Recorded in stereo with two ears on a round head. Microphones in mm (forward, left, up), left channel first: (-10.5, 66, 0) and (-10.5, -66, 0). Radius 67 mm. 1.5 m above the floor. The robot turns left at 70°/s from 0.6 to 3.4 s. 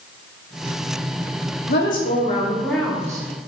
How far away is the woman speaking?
About 0.8 m.